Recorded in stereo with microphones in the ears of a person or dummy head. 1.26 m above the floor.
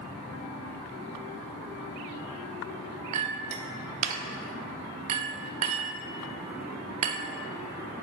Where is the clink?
30° right (ahead or behind), 0.5 m.